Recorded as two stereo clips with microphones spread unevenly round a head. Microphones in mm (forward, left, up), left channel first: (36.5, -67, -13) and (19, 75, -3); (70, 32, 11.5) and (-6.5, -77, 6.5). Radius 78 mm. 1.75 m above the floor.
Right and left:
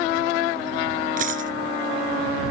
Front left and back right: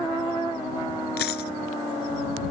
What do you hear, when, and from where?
1.2 s a dropped coin: 70° left